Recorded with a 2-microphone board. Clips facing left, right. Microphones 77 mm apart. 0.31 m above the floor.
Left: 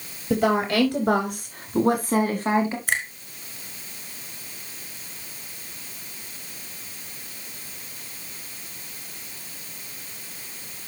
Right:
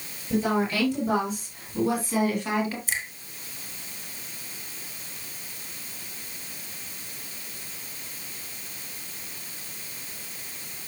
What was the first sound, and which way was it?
A woman speaking, 65° left (ahead or behind).